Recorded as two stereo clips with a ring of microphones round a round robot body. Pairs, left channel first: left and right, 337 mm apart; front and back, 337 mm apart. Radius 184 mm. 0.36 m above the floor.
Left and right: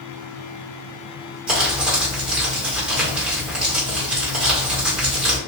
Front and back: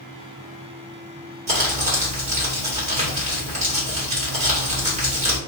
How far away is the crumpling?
About 1.1 m.